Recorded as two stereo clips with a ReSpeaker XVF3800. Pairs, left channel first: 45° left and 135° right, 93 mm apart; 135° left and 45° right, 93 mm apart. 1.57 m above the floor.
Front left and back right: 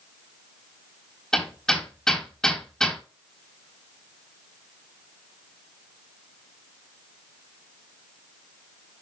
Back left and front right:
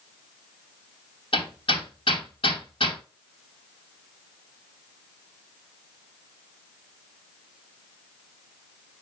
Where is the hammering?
125° left, 3 m.